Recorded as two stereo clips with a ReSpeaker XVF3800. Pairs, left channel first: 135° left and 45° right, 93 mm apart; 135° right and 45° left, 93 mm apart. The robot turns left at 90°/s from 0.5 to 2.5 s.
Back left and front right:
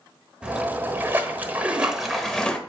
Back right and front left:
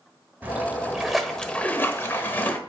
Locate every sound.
0.4 s a splash: 15° left, 1.1 m; by 2.6 s 165° right, 1.1 m